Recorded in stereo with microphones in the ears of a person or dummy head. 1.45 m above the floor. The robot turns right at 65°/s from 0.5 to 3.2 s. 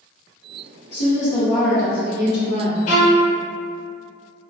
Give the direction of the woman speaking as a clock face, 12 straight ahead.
8 o'clock.